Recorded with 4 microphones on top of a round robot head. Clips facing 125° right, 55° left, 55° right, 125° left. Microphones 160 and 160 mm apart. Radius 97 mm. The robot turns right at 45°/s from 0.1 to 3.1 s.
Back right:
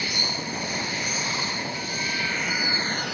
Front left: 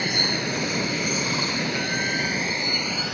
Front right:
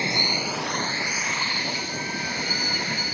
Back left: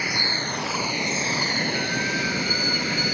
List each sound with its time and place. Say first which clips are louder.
0.0 s running water: front left 5 dB, front right 2 dB; 10° left; by 3.1 s 145° left